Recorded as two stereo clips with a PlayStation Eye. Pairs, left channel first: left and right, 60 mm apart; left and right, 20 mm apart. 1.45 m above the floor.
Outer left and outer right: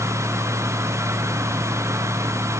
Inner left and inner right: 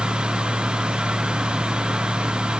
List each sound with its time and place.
Only background noise.